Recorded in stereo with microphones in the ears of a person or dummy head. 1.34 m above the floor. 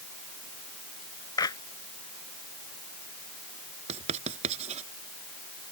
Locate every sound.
1.4 s a clap: 25° left (ahead or behind)
3.9 s writing: 40° right (ahead or behind)